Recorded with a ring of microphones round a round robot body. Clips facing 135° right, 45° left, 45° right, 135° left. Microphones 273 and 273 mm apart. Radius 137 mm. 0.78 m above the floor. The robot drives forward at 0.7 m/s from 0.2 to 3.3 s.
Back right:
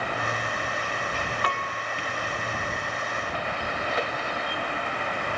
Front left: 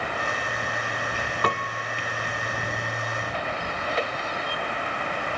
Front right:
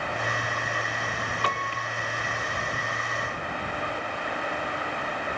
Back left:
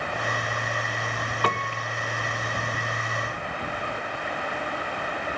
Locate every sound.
1.4 s a piano: 95° left, 1.0 m; by 1.9 s 110° left, 1.1 m